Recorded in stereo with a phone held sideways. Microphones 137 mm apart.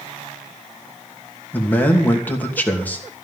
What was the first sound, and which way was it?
A man speaking, 10° left (ahead or behind).